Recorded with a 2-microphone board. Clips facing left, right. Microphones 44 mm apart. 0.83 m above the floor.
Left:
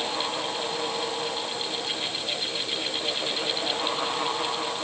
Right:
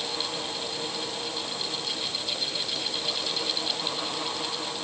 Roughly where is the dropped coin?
No dropped coin in this recording.